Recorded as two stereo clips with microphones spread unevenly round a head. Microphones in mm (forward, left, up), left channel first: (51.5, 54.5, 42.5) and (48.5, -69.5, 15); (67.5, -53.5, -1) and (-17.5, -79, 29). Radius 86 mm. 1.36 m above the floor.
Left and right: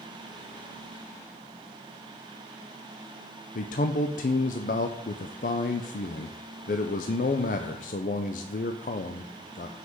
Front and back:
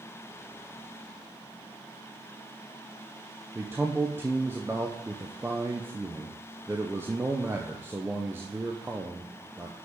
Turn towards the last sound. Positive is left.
turn(degrees=115)